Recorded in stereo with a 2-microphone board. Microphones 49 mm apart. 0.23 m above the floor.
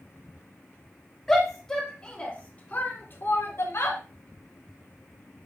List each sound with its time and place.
1.3 s a shout: 5° left (ahead or behind), 3 m; by 4.0 s 65° left (ahead or behind), 2.5 m